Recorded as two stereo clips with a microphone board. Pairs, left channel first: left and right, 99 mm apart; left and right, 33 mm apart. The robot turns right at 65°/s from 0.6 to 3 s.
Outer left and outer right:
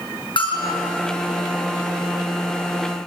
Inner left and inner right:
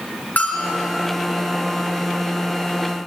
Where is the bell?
60° left (ahead or behind), 6.5 m; by 0.8 s 70° left (ahead or behind), 6.5 m.